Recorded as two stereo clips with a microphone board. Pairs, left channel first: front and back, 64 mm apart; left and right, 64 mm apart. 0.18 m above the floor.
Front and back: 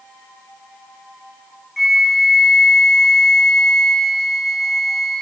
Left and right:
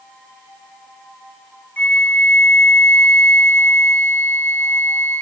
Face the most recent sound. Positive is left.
turn(degrees=90)